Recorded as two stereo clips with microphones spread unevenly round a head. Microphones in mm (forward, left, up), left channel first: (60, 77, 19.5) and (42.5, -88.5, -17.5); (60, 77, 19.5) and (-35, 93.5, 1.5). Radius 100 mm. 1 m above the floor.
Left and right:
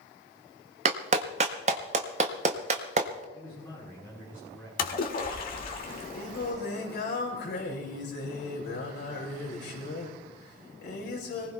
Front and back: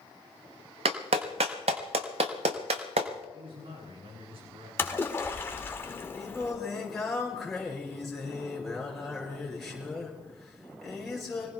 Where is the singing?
75° left, 5.5 m.